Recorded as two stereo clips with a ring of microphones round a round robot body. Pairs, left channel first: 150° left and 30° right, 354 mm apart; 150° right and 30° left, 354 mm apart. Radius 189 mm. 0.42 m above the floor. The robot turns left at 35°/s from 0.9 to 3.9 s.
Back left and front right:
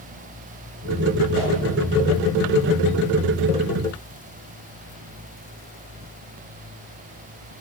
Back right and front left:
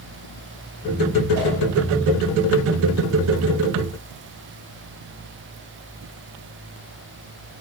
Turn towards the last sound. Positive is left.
turn(degrees=-65)